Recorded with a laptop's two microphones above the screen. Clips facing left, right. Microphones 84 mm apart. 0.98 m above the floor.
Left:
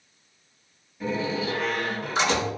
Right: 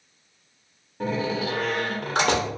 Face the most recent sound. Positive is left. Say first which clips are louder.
# right 1 dB
turn(degrees=-60)  # may be behind; listen again after turning